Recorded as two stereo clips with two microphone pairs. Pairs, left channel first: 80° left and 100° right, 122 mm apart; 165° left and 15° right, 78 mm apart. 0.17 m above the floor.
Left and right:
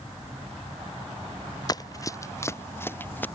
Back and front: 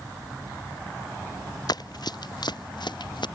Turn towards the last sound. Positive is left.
turn(degrees=155)